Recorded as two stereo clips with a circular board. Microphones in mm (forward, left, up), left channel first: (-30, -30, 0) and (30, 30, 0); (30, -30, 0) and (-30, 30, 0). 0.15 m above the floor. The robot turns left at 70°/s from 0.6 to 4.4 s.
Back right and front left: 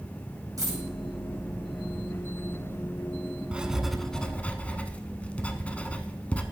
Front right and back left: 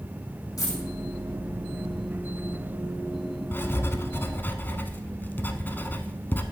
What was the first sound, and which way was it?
A dropped coin, 5° right.